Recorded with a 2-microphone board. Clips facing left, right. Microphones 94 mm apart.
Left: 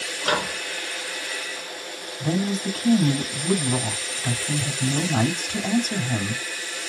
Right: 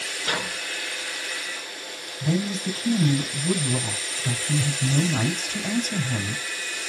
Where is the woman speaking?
70° left (ahead or behind), 3.5 m.